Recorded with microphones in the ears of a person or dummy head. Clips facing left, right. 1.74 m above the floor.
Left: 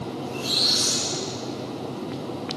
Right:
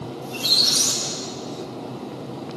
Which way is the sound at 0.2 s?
80° right.